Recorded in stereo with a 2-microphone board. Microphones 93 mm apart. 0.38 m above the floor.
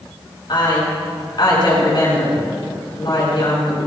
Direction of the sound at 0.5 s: 55° left (ahead or behind).